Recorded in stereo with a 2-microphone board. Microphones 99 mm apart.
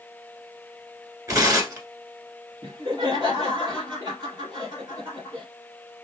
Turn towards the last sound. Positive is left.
turn(degrees=-45)  # may be behind; listen again after turning